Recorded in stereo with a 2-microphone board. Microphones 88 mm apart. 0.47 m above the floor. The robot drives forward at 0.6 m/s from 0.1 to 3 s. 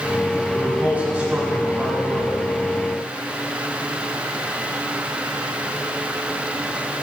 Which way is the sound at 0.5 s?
15° right (ahead or behind).